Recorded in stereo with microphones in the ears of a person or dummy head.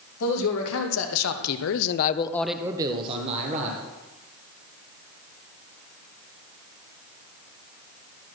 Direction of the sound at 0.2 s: 70° left (ahead or behind).